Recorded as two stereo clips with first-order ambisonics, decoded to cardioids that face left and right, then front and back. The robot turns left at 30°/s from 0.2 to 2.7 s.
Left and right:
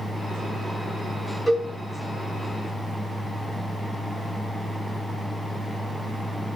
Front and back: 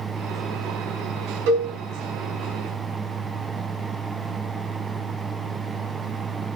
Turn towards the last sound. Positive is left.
turn(degrees=145)